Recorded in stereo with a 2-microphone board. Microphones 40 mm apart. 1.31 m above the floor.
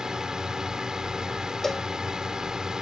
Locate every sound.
0.0 s a drone: 15° right (ahead or behind)
1.6 s a cowbell: 5° left (ahead or behind)